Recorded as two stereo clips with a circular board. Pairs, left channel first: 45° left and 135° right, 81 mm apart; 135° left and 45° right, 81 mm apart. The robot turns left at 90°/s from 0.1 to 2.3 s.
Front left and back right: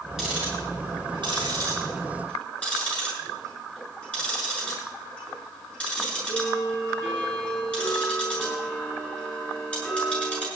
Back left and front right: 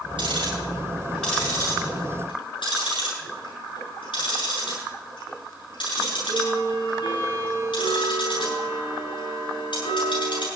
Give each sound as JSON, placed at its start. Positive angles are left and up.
{"t": 0.2, "sound": "ticking", "azimuth_deg": -50, "distance_m": 9.0}